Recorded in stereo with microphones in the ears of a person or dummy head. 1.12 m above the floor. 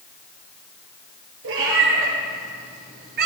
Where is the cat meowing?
80° right, 4.5 m; by 3.3 s 60° right (ahead or behind), 4 m.